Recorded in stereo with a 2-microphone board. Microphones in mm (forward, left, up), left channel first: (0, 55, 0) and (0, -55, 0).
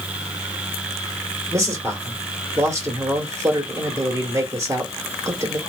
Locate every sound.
1.5 s a man speaking: 25° right (ahead or behind), 0.9 m